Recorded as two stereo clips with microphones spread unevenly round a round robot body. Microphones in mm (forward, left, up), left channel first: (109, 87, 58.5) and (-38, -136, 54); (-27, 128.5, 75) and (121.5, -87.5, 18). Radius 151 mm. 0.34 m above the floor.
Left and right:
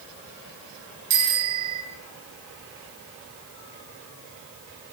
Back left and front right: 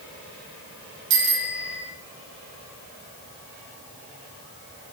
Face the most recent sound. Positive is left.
turn(degrees=-105)